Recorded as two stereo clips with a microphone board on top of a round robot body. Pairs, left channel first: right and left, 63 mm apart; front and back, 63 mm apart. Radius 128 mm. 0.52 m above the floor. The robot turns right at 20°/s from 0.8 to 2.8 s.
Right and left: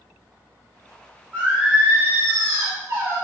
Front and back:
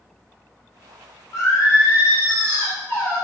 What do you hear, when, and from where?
1.3 s singing: 20° left, 1.3 m; by 3.2 s 50° left, 1.3 m